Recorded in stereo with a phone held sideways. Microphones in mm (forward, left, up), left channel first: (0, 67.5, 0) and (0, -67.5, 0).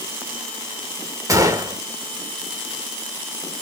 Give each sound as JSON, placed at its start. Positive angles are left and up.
{"t": 1.3, "sound": "a gunshot", "side_deg": -25, "distance_m": 0.9}